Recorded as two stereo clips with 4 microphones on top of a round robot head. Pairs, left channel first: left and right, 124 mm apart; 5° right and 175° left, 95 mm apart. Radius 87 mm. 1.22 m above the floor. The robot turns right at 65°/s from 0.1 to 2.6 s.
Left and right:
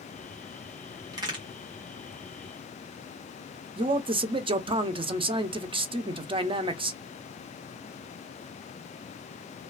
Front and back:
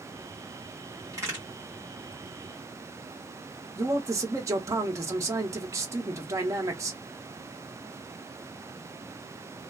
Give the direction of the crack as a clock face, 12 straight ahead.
4 o'clock.